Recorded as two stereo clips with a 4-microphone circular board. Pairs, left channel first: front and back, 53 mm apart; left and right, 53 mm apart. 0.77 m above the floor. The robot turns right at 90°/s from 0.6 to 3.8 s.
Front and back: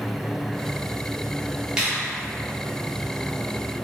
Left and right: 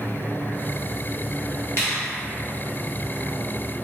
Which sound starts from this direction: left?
A finger snap, at 1.8 s.